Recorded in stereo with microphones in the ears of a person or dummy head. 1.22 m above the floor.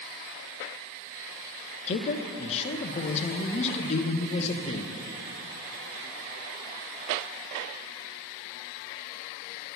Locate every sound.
1.9 s a man speaking: 30° left (ahead or behind), 0.8 m